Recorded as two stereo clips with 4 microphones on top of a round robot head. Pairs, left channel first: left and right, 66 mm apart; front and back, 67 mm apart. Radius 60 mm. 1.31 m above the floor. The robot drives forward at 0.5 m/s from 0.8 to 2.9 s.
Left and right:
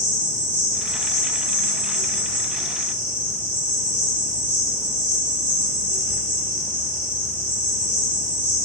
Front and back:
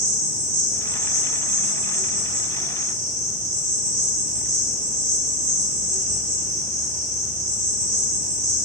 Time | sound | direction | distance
0.0 | an insect | 150° right | 3.5 m